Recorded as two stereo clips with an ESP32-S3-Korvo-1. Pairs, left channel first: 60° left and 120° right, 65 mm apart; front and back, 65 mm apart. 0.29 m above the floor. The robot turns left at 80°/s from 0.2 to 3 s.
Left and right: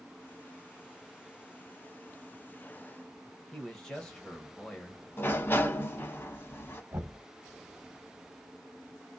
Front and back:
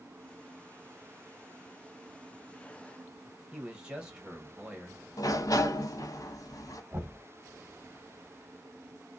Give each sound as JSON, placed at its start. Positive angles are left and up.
{"t": 3.5, "sound": "a man speaking", "azimuth_deg": 120, "distance_m": 1.0}
{"t": 5.2, "sound": "a sliding door", "azimuth_deg": 10, "distance_m": 0.6}
{"t": 6.9, "sound": "knocking", "azimuth_deg": -125, "distance_m": 1.4}